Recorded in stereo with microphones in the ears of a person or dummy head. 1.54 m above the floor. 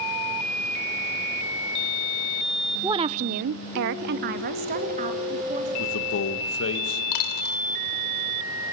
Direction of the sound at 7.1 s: 60° left (ahead or behind).